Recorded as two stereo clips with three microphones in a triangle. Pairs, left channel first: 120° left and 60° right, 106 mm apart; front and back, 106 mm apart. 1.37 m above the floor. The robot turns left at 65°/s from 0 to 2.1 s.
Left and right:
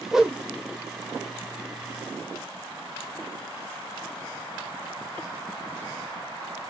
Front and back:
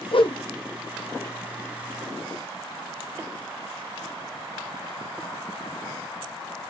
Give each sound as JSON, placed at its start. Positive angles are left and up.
{"t": 0.1, "sound": "a whoosh", "azimuth_deg": 30, "distance_m": 0.6}